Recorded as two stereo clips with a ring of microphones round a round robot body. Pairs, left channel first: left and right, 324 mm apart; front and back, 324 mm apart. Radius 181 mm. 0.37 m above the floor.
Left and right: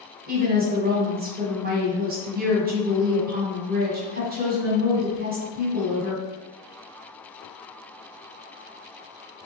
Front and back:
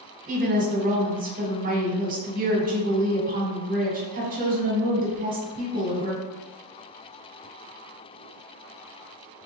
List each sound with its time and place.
0.3 s a woman speaking: 130° right, 1.2 m